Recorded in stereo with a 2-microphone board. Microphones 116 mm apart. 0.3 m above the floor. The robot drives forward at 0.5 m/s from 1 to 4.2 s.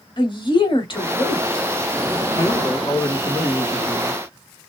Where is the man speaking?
35° left (ahead or behind), 2 m; by 4.6 s 25° left (ahead or behind), 3 m.